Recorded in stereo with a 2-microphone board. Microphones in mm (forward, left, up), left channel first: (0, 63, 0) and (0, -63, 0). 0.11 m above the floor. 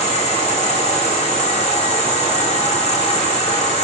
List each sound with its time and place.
0.0 s an insect: 55° left (ahead or behind), 3 m